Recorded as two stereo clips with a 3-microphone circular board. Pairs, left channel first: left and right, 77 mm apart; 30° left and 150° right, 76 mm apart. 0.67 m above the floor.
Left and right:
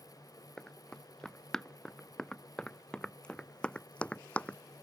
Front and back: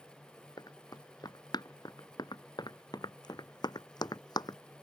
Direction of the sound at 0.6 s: 5° left.